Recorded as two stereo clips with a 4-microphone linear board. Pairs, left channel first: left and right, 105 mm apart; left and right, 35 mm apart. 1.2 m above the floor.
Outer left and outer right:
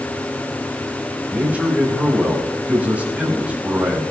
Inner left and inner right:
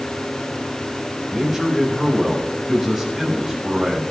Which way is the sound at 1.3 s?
15° right (ahead or behind).